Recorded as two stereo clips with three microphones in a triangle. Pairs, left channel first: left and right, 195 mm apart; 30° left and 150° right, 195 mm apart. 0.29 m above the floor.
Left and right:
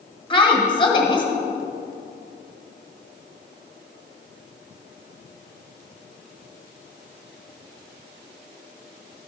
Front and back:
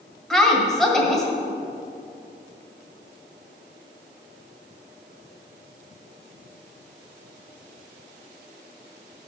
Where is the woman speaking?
115° left, 1.6 m.